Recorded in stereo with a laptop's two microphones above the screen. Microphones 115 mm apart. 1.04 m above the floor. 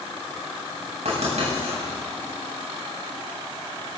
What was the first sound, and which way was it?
Writing, 80° right.